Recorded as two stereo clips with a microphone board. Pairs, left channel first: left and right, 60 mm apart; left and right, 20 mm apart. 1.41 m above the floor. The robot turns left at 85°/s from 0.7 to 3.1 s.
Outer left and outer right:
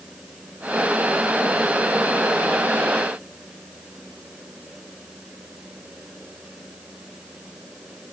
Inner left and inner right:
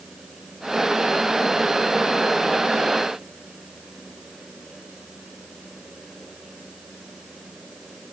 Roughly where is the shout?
I don't hear a shout.